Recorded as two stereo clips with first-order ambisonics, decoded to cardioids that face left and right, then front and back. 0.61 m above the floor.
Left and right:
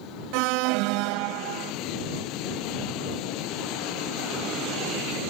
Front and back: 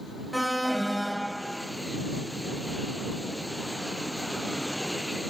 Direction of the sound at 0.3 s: 90° right.